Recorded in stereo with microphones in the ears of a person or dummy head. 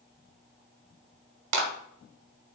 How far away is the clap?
About 2 m.